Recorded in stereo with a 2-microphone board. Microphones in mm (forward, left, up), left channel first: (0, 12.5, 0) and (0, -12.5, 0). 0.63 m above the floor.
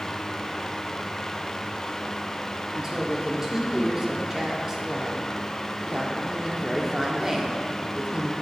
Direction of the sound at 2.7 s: 20° right (ahead or behind).